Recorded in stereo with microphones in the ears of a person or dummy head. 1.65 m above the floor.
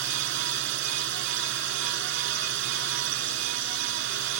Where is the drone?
65° right (ahead or behind).